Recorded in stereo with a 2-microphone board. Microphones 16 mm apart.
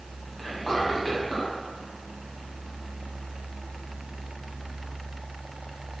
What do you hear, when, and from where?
0.4 s whispering: 25° left (ahead or behind), 1.4 m